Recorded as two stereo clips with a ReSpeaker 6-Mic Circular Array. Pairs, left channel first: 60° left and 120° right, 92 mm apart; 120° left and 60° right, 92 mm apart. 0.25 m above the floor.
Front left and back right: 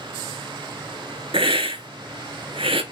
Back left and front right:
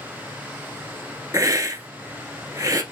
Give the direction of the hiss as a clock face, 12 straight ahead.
4 o'clock.